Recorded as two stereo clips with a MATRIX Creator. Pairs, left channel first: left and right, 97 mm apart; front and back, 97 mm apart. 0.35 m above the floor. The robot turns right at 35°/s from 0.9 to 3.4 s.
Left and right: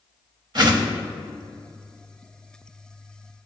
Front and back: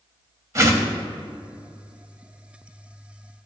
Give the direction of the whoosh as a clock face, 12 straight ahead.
4 o'clock.